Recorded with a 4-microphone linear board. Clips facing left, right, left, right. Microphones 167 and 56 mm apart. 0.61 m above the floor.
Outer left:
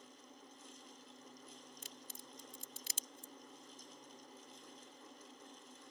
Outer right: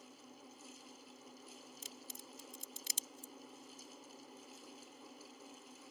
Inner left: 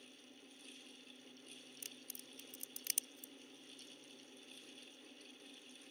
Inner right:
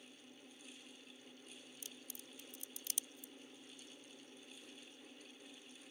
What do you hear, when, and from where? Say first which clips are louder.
1.8 s a crack: outer right 2 dB, inner right 1 dB; 60° left (ahead or behind)